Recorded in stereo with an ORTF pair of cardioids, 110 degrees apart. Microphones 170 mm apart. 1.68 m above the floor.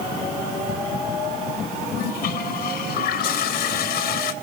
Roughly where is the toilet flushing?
Left.